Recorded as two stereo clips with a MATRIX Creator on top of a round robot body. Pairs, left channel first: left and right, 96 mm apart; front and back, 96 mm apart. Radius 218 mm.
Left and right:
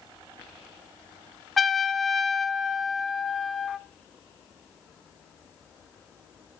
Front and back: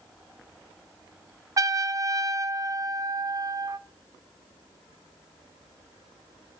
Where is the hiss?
No hiss in this recording.